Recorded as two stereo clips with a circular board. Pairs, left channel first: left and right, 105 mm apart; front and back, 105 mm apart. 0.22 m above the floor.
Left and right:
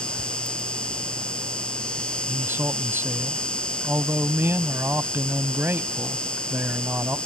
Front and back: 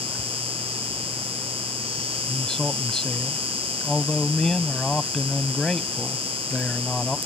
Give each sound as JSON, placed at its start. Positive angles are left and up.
{"t": 0.0, "sound": "an insect", "azimuth_deg": 170}
{"t": 2.3, "sound": "a man speaking", "azimuth_deg": -75}